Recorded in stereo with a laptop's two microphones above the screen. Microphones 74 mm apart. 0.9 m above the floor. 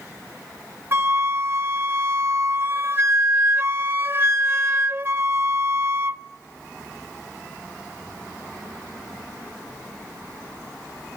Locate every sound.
0.9 s a flute: 35° right (ahead or behind), 0.7 m